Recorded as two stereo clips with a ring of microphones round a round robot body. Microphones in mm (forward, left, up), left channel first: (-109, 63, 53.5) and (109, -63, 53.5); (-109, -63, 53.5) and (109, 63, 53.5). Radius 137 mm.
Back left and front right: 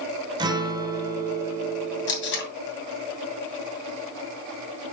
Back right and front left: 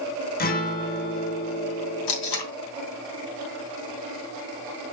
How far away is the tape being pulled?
About 2.5 m.